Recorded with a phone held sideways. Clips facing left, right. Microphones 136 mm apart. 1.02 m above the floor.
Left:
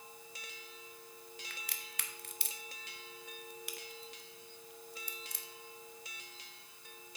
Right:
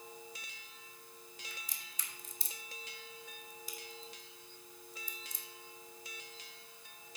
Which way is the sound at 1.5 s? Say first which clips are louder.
Left 3 dB; 70° left (ahead or behind).